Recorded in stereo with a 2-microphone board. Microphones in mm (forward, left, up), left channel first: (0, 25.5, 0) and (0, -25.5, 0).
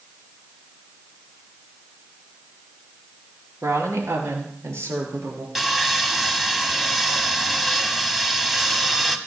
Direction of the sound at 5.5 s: 5° right (ahead or behind).